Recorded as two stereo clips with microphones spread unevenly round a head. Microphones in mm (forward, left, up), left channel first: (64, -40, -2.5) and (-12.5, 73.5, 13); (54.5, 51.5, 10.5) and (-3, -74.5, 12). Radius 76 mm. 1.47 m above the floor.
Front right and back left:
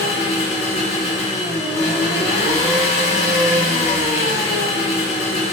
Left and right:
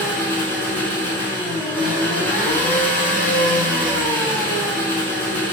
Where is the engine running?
10° right, 3 m.